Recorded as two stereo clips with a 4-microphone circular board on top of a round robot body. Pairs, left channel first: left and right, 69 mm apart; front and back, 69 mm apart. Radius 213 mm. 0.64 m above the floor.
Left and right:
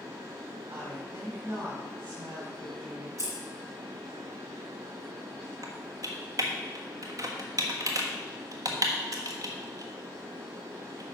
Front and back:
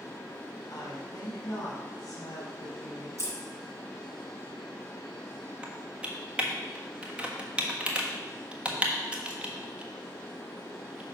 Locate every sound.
0.7 s a woman speaking: 45° right, 4 m
3.2 s scissors: 135° right, 0.8 m
5.6 s typing on a keyboard: 110° right, 1.4 m